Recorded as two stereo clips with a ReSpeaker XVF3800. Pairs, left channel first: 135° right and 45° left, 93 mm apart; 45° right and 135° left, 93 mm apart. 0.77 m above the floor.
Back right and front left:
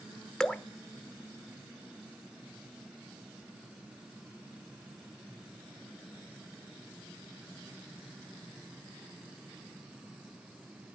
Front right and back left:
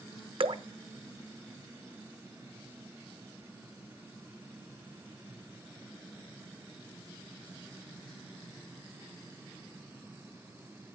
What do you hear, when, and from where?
0.4 s dripping: 140° left, 0.6 m